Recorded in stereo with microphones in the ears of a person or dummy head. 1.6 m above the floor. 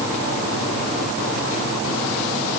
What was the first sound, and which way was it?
Only background noise.